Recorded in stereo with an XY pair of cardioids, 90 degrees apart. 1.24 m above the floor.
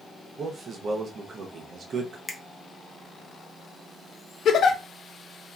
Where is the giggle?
70° left, 0.6 m.